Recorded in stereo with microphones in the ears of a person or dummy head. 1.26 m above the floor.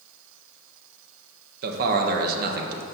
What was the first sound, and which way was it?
A man speaking, 60° right (ahead or behind).